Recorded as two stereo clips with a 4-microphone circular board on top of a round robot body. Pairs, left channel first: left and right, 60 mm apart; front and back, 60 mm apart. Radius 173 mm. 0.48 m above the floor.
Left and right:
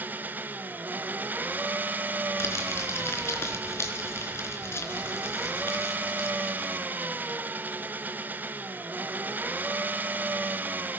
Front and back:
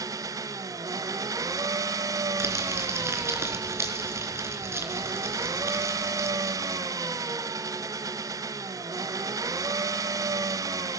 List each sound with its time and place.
0.0 s an engine running: 155° right, 1.0 m
2.4 s crumpling: 135° left, 3.5 m